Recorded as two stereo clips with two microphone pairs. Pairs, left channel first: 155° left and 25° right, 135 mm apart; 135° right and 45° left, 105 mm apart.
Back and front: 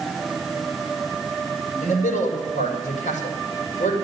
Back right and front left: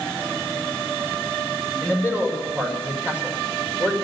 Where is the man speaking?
155° left, 5.5 m.